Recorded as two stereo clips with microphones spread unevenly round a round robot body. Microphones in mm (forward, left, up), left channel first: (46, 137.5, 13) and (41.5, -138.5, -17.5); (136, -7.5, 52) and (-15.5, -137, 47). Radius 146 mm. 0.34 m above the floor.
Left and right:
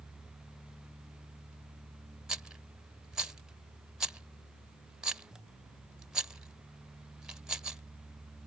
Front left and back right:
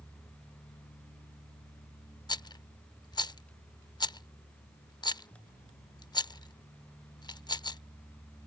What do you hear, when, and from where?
2.3 s a rattle: 15° right